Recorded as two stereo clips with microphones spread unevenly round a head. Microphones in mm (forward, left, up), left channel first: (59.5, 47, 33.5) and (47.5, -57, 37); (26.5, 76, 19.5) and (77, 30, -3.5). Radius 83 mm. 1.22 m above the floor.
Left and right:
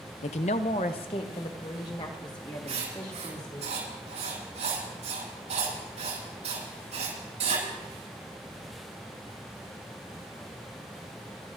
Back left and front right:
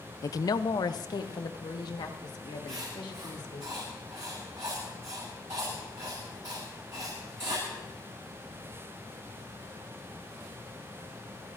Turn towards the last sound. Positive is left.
turn(degrees=-95)